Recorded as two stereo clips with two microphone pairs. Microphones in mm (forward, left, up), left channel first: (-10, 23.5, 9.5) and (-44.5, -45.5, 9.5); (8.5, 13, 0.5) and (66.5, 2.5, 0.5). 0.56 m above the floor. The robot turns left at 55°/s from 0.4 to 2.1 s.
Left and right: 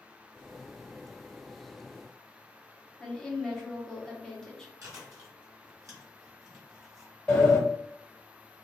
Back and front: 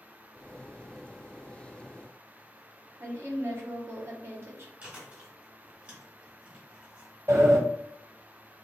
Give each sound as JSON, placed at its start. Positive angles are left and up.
{"t": 3.0, "sound": "a woman speaking", "azimuth_deg": -20, "distance_m": 0.9}
{"t": 4.8, "sound": "chewing", "azimuth_deg": -75, "distance_m": 1.8}
{"t": 7.3, "sound": "a sliding door", "azimuth_deg": -15, "distance_m": 1.8}